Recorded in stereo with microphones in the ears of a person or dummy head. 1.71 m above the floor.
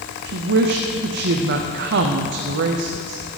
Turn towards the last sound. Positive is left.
turn(degrees=-60)  # may be behind; listen again after turning